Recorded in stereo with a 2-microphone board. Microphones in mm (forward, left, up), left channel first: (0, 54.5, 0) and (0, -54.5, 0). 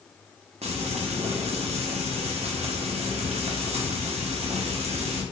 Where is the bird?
No bird in this recording.